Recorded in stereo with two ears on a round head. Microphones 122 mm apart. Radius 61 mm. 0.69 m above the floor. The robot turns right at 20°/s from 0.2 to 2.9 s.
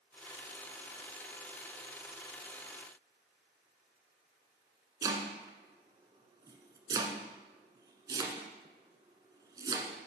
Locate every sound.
5.0 s chopping: 30° right (ahead or behind), 1.2 m